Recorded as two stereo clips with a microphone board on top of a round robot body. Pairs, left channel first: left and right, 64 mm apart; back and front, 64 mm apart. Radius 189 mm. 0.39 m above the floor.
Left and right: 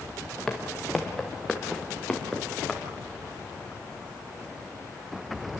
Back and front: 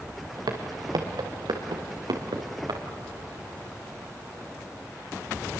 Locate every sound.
0.5 s footsteps: 5° left, 1.8 m; by 2.8 s 5° right, 3.5 m